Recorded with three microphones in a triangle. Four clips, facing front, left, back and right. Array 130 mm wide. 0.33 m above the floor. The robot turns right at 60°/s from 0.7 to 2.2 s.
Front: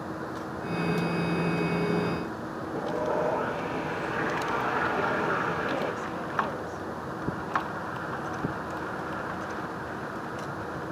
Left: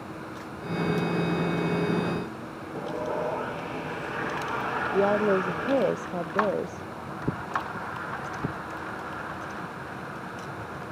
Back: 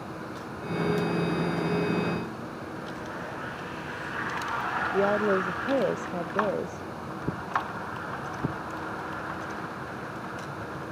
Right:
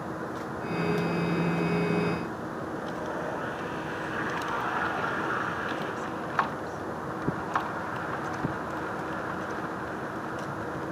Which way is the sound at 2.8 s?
25° left.